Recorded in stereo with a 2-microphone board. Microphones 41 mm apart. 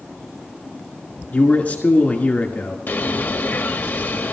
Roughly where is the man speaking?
Left.